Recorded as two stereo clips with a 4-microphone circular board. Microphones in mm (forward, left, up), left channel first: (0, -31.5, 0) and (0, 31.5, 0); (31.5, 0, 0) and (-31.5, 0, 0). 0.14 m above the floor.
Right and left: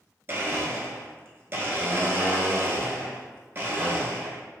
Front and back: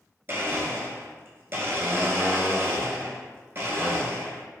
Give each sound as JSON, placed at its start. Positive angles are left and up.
{"t": 0.3, "sound": "a blender", "azimuth_deg": 135, "distance_m": 0.6}